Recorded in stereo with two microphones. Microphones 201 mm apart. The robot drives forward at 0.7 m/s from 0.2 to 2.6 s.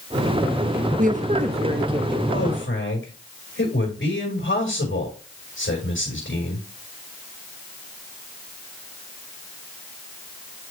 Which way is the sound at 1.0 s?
45° right (ahead or behind).